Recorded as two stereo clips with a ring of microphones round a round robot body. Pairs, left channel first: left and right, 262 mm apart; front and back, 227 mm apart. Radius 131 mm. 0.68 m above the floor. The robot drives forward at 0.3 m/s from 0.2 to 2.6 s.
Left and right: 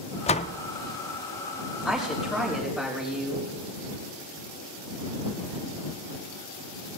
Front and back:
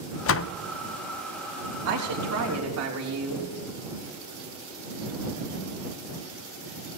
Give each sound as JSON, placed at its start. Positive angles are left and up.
{"t": 0.3, "sound": "a door slam", "azimuth_deg": 25, "distance_m": 0.5}
{"t": 1.9, "sound": "a woman speaking", "azimuth_deg": 180, "distance_m": 4.0}